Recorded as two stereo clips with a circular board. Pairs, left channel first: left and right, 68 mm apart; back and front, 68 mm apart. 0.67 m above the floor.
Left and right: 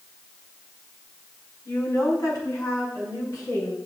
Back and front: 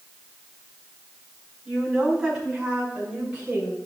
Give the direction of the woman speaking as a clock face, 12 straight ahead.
9 o'clock.